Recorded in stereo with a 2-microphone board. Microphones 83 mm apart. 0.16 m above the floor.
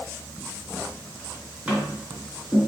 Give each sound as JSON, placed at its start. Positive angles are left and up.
{"t": 1.7, "sound": "tapping", "side_deg": -10, "distance_m": 1.9}